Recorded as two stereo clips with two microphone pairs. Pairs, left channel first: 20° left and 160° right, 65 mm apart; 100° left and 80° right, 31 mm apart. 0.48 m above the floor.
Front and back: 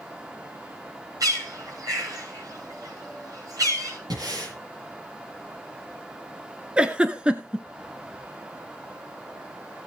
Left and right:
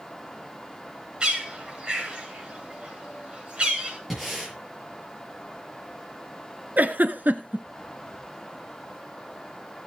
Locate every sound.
1.2 s a bird: 140° right, 5.5 m
4.1 s breathing: 170° right, 5.5 m
6.8 s a giggle: 90° right, 1.0 m